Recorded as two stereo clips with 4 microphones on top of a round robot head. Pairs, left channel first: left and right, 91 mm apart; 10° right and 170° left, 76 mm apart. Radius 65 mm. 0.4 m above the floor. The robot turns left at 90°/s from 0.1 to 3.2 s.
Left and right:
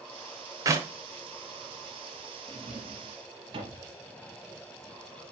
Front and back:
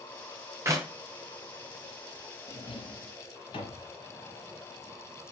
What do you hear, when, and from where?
0.7 s a clap: 140° right, 1.3 m; by 0.9 s 160° right, 1.3 m
2.5 s a drawer: 20° left, 1.7 m; by 3.9 s 45° right, 1.7 m